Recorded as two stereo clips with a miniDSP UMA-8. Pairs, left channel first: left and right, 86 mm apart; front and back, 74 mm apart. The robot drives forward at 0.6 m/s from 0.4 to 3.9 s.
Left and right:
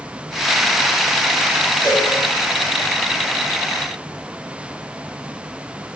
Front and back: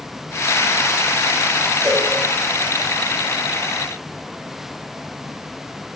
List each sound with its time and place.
1.8 s a cowbell: 95° left, 1.6 m; by 2.1 s 100° left, 1.6 m